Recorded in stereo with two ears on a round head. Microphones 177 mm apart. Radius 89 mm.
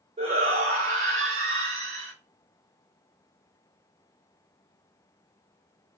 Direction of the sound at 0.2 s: 25° right (ahead or behind).